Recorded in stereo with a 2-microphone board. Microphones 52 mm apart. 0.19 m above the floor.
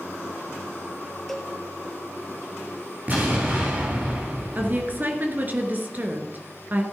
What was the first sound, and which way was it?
A cowbell, centre (ahead or behind).